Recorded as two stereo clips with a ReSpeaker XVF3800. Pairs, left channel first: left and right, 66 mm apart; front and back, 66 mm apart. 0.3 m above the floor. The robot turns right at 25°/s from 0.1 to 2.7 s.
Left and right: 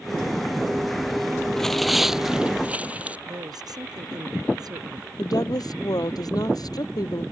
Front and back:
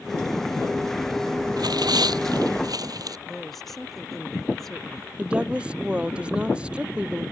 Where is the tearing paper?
170° left; by 3.2 s 160° right.